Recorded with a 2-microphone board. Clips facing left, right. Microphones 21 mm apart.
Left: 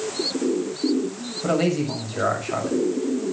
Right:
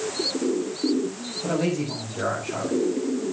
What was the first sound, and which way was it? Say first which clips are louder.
A man speaking: left 4 dB; 75° left (ahead or behind).